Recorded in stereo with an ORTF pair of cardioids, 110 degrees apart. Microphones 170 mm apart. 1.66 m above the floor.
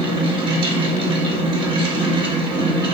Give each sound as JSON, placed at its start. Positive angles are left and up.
{"t": 0.0, "sound": "a fan", "azimuth_deg": -30, "distance_m": 0.7}